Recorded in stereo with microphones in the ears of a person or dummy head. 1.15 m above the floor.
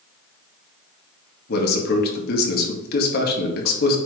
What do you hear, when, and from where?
1.5 s a man speaking: 55° left (ahead or behind), 1.8 m